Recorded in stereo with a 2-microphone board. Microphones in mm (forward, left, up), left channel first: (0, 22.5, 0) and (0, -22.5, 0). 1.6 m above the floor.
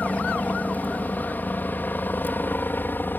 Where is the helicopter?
35° left (ahead or behind); by 3.2 s 45° left (ahead or behind).